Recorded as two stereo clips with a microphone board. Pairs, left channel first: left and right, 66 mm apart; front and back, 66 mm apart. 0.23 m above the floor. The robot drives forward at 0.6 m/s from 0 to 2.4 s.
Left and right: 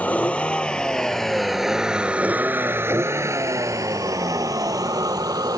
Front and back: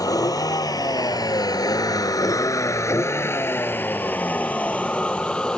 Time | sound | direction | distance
0.0 | a vehicle | 20° left | ?